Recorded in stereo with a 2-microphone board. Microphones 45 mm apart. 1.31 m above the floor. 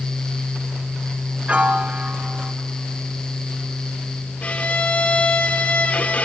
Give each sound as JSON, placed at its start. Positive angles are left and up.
{"t": 1.5, "sound": "a piano", "side_deg": -25, "distance_m": 0.6}
{"t": 4.4, "sound": "a violin", "side_deg": 30, "distance_m": 2.0}